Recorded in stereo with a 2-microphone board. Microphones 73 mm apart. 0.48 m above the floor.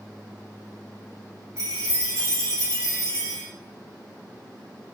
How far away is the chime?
About 1.2 m.